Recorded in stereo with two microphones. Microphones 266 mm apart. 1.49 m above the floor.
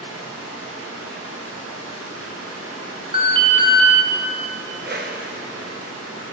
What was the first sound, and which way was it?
Running water, 60° right (ahead or behind).